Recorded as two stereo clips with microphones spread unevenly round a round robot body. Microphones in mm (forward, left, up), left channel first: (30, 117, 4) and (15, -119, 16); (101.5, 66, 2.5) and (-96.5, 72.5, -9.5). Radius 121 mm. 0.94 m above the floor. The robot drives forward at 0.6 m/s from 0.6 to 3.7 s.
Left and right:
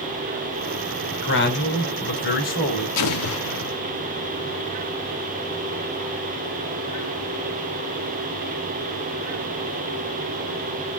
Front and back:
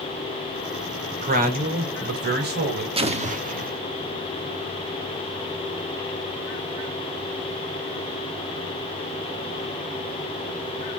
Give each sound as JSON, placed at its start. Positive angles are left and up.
{"t": 1.2, "sound": "a man speaking", "azimuth_deg": 130, "distance_m": 2.5}
{"t": 3.0, "sound": "an explosion", "azimuth_deg": 115, "distance_m": 1.0}